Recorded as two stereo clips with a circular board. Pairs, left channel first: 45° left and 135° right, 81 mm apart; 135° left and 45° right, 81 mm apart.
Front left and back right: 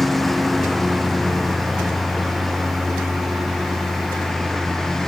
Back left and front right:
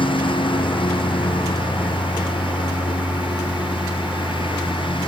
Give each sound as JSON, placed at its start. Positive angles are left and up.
{"t": 0.0, "sound": "a lawn mower", "azimuth_deg": 135}